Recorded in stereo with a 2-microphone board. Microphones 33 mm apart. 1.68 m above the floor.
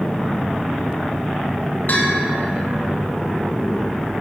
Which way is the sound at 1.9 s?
65° left (ahead or behind).